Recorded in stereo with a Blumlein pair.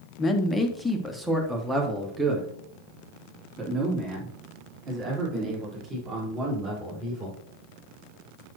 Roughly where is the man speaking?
Ahead.